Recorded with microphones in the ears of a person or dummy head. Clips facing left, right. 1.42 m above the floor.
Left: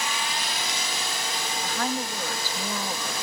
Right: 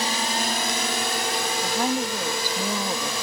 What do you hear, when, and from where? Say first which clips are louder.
0.0 s a drone: right 5 dB; 35° right (ahead or behind); by 3.2 s 65° right (ahead or behind)
1.6 s a woman speaking: right 4 dB; 15° right (ahead or behind)